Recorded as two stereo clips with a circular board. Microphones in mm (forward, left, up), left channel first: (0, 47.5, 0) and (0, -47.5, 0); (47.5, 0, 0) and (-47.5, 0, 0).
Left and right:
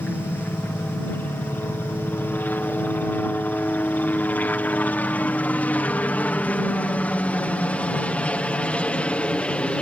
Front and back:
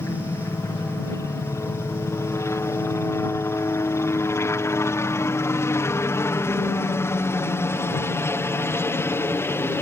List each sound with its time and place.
0.0 s a helicopter: 35° left; by 9.8 s 25° left